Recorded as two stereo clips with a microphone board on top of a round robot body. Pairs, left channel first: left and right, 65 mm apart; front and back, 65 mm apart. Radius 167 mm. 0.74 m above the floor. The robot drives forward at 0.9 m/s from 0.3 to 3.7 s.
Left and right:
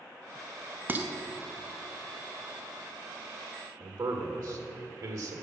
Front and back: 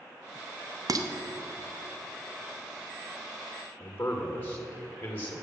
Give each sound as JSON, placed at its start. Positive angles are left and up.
{"t": 0.9, "sound": "dishes clattering", "azimuth_deg": -150, "distance_m": 0.8}
{"t": 3.8, "sound": "a man speaking", "azimuth_deg": -65, "distance_m": 1.6}